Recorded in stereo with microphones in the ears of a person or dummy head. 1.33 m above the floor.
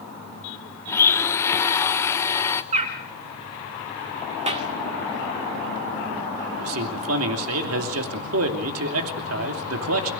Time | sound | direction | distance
0.9 | a blender | 15° left (ahead or behind) | 0.9 m
2.7 | a bird | 40° right (ahead or behind) | 3.5 m
4.5 | a clap | 35° right (ahead or behind) | 2 m
6.6 | a man speaking | 85° right | 2.5 m